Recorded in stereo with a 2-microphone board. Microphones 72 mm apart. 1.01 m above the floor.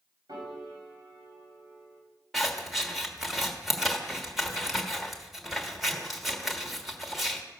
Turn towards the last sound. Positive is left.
turn(degrees=0)  # may be behind; listen again after turning